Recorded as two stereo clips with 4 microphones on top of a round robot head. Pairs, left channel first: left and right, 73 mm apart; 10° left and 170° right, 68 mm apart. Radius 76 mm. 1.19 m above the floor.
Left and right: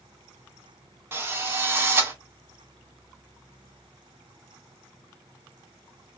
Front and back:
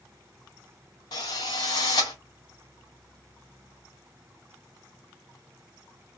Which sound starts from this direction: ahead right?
A drill, at 1.1 s.